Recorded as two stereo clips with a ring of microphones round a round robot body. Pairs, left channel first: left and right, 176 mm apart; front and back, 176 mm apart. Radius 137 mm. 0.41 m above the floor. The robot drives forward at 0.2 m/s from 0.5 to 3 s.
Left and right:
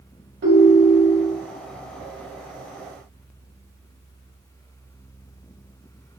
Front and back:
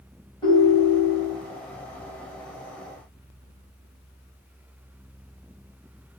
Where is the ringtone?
70° right, 1.4 m; by 1.3 s 80° right, 1.3 m.